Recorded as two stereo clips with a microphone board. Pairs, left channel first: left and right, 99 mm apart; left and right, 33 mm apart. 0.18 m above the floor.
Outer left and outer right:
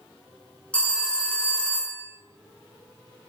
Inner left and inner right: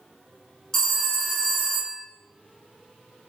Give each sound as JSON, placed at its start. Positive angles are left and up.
{"t": 0.7, "sound": "a phone ringing", "side_deg": 10, "distance_m": 1.3}